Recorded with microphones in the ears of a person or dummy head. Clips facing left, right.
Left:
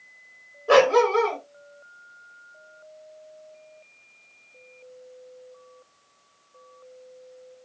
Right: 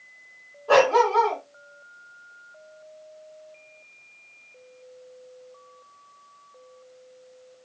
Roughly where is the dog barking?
Left.